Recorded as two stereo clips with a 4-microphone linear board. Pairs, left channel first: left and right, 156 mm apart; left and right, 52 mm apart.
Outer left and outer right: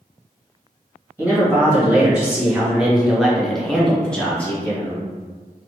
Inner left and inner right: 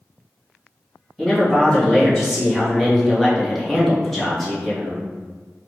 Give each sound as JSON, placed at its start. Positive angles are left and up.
{"t": 1.2, "sound": "a man speaking", "side_deg": -10, "distance_m": 1.4}